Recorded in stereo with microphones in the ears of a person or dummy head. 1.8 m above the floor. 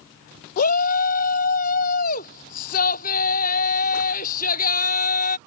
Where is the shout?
45° left (ahead or behind).